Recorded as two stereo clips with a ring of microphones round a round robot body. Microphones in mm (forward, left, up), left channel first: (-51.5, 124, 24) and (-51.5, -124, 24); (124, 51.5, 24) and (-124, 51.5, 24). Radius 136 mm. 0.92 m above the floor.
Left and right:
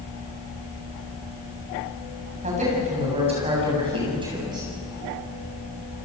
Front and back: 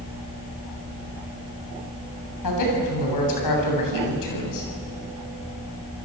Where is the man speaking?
20° right, 7.5 m; by 4.7 s 15° right, 8 m.